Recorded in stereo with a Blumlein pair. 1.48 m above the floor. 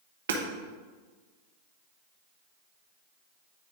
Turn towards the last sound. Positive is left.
turn(degrees=-60)